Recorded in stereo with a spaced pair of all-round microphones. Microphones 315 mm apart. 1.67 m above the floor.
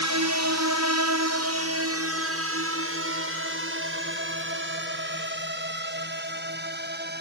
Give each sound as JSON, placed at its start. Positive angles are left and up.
{"t": 0.0, "sound": "a drone", "side_deg": -70}